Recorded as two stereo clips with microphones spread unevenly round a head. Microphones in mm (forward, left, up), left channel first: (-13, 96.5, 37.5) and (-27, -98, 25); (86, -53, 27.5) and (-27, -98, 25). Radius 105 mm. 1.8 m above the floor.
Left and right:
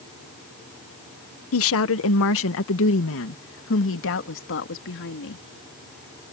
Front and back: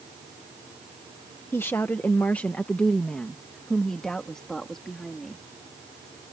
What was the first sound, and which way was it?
A woman speaking, 100° left.